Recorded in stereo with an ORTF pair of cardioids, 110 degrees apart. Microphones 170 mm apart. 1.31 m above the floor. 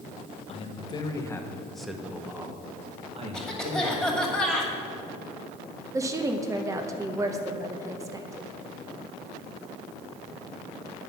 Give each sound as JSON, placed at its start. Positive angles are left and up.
{"t": 0.5, "sound": "a man speaking", "azimuth_deg": 35, "distance_m": 1.2}
{"t": 3.3, "sound": "a cough", "azimuth_deg": 5, "distance_m": 2.0}
{"t": 5.9, "sound": "a woman speaking", "azimuth_deg": -20, "distance_m": 0.8}